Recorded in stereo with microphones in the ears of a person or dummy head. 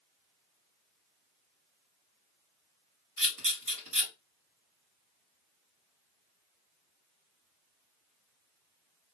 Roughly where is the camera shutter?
Right.